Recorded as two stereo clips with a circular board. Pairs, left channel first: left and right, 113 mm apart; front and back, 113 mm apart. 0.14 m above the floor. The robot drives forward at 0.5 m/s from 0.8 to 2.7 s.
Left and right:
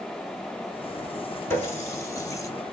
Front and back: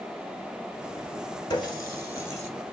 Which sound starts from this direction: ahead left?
A running tap, at 1.5 s.